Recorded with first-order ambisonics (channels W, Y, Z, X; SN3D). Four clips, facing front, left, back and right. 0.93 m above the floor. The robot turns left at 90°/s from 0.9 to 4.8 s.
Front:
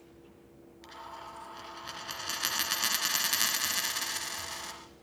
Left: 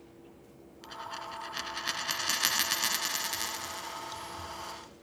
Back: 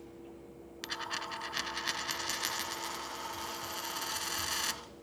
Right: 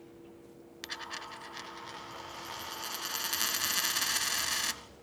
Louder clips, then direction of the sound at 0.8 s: Even, back 7 dB; 155° right.